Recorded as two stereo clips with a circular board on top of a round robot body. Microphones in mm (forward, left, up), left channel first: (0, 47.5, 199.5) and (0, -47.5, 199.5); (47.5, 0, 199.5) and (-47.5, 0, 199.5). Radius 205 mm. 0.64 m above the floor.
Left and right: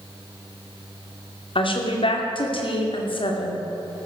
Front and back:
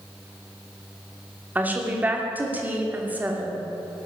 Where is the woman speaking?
110° left, 2.5 m.